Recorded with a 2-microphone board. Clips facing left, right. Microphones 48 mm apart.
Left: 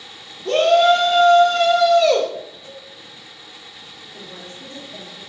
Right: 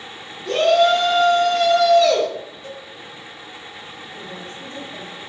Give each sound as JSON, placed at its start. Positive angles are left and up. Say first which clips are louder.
{"t": 0.5, "sound": "a shout", "louder": "left 1 dB", "side_deg": 55, "distance_m": 1.4}
{"t": 2.6, "sound": "a cowbell", "louder": "right 4 dB", "side_deg": -50, "distance_m": 1.2}
{"t": 4.1, "sound": "a woman speaking", "louder": "right 2 dB", "side_deg": 0, "distance_m": 1.6}